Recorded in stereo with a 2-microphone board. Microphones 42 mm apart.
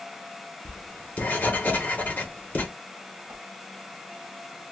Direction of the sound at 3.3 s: 75° right (ahead or behind).